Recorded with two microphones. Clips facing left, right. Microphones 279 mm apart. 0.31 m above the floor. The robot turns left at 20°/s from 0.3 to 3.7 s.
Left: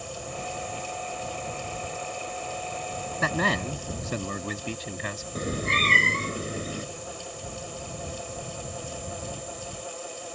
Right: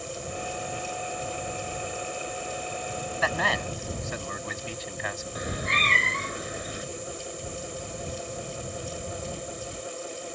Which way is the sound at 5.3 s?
35° left (ahead or behind).